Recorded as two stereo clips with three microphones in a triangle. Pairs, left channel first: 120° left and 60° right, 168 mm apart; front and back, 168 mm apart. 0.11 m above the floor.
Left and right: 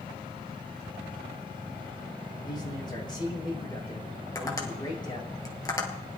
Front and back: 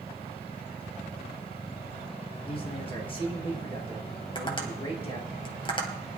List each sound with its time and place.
2.5 s a man speaking: 55° left, 5 m
4.3 s tapping: 55° left, 2 m